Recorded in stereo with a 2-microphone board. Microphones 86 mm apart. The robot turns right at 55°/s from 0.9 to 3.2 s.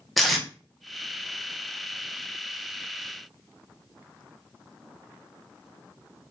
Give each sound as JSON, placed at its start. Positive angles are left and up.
{"t": 0.2, "sound": "tape being pulled", "side_deg": 0, "distance_m": 0.6}